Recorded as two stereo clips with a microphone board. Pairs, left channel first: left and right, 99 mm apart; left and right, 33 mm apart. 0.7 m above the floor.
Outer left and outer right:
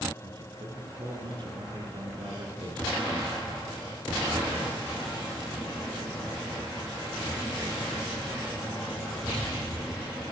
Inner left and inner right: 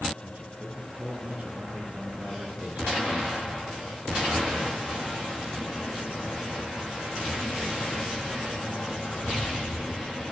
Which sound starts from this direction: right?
A man speaking, at 0.2 s.